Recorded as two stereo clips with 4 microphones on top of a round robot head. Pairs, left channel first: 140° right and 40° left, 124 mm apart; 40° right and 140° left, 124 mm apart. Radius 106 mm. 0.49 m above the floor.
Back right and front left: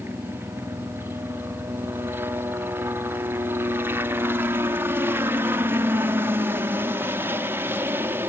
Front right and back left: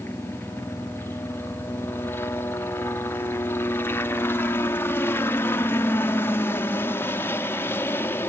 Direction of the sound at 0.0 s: Straight ahead.